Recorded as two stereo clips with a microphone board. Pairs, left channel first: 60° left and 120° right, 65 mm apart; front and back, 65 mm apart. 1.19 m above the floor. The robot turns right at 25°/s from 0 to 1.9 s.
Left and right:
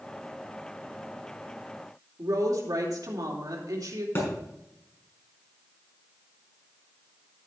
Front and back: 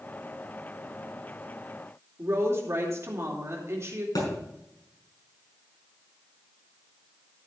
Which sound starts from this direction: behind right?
A woman speaking, at 2.2 s.